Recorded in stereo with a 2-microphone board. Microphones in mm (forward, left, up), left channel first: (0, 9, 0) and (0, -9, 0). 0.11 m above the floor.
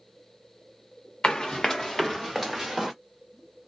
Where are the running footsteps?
45° left (ahead or behind), 0.8 m; by 2.9 s 20° right (ahead or behind), 1.5 m.